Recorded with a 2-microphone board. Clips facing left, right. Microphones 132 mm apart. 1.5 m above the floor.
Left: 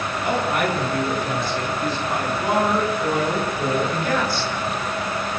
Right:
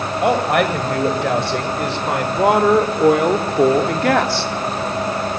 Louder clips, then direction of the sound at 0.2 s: Right 6 dB; 80° right.